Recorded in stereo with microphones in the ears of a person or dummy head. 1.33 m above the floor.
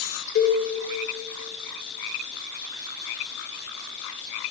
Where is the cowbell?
85° left, 1.7 m.